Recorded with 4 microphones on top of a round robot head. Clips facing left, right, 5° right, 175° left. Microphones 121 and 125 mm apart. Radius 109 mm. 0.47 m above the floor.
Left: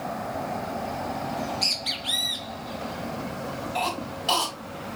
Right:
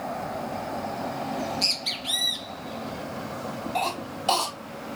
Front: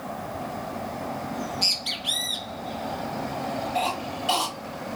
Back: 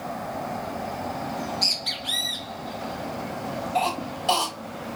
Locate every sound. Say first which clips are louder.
1.3 s a bird: even, back 1 dB; 75° right, 1.5 m
3.8 s a cough: even, back 5 dB; 125° right, 3.5 m